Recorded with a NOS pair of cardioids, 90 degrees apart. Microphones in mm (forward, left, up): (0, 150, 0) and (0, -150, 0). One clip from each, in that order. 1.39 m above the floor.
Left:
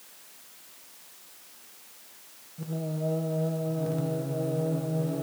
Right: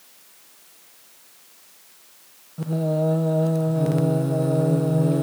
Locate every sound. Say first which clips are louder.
2.6 s singing: right 10 dB; 50° right, 0.7 m